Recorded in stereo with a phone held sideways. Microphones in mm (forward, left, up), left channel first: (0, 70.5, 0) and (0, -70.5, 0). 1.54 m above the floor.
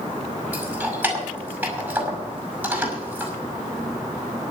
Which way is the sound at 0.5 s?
10° right (ahead or behind).